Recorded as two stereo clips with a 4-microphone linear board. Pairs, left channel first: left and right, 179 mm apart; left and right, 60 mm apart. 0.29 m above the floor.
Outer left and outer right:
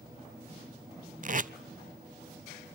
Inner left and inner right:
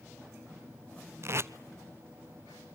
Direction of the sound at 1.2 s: 50° right (ahead or behind).